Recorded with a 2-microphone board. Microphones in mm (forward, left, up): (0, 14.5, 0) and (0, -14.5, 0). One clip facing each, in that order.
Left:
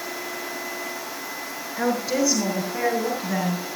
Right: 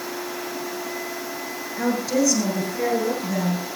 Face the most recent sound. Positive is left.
turn(degrees=35)  # may be behind; listen again after turning